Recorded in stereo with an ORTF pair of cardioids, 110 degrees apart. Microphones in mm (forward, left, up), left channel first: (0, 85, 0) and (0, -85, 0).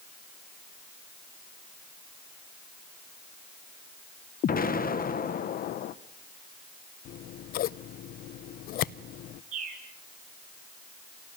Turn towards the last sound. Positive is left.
turn(degrees=-45)